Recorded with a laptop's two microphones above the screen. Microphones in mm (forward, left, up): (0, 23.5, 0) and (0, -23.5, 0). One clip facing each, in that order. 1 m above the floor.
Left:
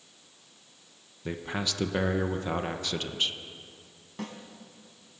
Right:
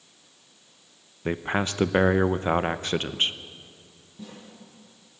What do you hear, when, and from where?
1.2 s a man speaking: 35° right (ahead or behind), 0.7 m
4.2 s a snare drum: 80° left, 4.5 m